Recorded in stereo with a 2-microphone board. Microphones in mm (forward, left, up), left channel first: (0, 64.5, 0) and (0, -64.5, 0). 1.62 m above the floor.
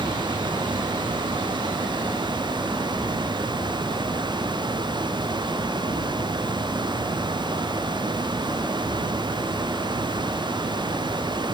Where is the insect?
25° right (ahead or behind), 7.5 m.